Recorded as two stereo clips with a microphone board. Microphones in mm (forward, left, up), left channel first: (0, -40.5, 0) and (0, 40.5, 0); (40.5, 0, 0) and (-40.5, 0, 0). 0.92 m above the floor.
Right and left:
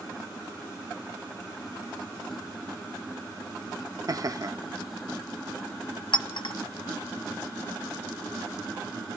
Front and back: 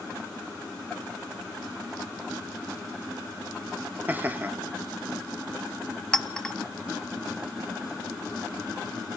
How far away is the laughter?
About 1.1 m.